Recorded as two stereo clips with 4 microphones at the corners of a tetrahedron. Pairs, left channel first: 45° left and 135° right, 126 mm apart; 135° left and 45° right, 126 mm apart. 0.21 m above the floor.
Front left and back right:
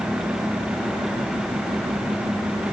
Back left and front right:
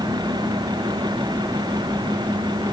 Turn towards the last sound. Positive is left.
No sound to turn to.